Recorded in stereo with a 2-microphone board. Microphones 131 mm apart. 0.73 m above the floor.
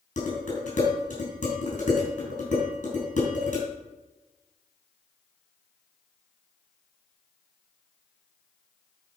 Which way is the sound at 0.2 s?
80° left.